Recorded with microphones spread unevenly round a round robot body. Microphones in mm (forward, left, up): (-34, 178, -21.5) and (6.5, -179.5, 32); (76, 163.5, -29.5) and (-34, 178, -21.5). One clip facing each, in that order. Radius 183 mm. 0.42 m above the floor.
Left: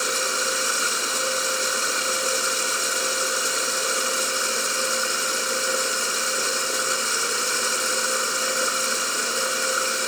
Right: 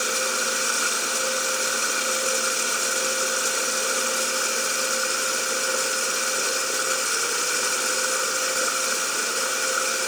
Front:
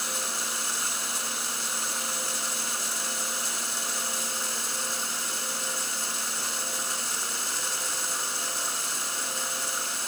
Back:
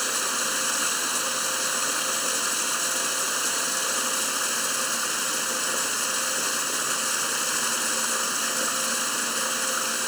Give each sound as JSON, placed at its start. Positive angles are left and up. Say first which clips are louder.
{"t": 0.0, "sound": "running water", "louder": "even, back 5 dB", "azimuth_deg": -175}